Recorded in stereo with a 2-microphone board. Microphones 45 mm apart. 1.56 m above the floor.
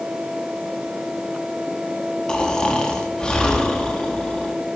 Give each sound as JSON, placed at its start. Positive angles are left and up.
{"t": 2.3, "sound": "snoring", "side_deg": 15, "distance_m": 1.7}